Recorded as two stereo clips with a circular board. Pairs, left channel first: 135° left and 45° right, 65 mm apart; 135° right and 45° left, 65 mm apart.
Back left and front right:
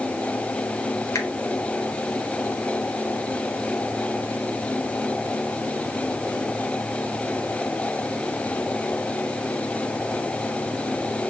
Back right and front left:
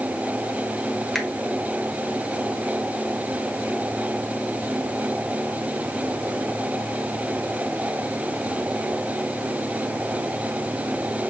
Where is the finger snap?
145° left, 1.0 m.